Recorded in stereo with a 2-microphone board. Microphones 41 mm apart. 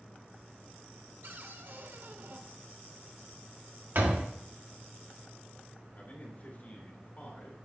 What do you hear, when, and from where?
1.2 s a cupboard door: 65° right (ahead or behind), 1.1 m
4.0 s a door slam: 60° right (ahead or behind), 1.6 m
5.9 s a man speaking: 50° left (ahead or behind), 3 m